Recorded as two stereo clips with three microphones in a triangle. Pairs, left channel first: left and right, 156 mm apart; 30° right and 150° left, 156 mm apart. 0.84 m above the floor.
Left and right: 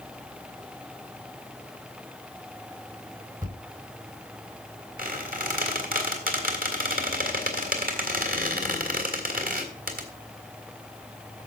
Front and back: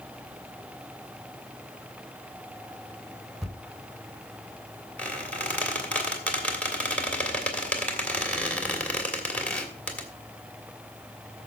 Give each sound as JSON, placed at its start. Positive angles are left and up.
{"t": 3.4, "sound": "a thud", "azimuth_deg": -120, "distance_m": 3.5}
{"t": 5.0, "sound": "a squeak", "azimuth_deg": -115, "distance_m": 2.5}